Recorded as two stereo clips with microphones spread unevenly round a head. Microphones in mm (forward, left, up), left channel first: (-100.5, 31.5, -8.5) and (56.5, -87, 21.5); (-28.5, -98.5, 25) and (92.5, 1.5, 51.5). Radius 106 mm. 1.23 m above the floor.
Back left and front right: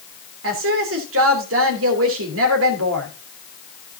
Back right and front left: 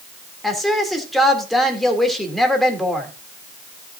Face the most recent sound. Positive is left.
turn(degrees=-50)